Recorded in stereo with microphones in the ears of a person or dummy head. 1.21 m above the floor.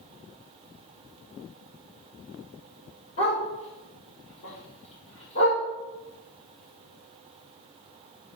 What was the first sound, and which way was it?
A dog barking, 35° left (ahead or behind).